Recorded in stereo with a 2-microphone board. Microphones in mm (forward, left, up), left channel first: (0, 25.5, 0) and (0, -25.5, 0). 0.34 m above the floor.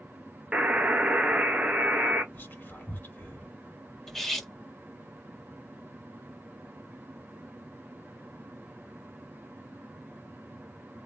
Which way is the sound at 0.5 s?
25° right (ahead or behind).